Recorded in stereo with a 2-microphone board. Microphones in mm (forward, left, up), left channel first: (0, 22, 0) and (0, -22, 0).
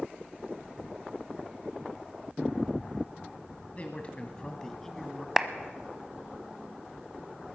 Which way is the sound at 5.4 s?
10° right (ahead or behind).